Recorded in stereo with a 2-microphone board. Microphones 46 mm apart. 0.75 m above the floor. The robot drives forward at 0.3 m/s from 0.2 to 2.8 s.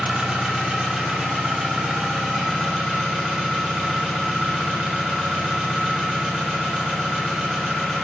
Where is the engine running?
20° right (ahead or behind), 1.0 m; by 8.0 s 10° right (ahead or behind), 1.7 m.